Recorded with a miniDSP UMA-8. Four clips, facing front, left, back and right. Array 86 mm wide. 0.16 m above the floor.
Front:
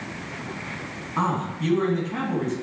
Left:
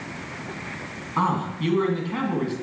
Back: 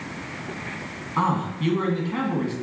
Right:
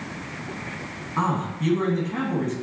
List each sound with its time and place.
1.2 s a man speaking: 125° left, 1.6 m